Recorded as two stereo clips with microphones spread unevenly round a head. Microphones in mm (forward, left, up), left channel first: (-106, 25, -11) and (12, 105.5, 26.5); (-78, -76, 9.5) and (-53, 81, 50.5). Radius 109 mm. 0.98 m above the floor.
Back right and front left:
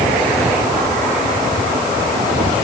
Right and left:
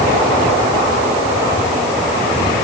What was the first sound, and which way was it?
Only background noise.